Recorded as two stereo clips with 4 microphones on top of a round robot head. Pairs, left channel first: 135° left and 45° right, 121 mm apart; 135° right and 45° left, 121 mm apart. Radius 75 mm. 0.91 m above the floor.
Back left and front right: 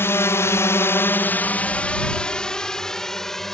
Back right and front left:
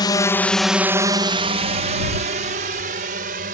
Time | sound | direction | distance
0.0 | a drone | 165° right | ?